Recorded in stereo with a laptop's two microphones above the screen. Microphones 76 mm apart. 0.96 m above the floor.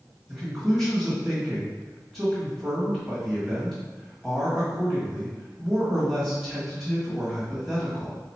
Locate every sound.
0.3 s a man speaking: 5° left (ahead or behind), 1.4 m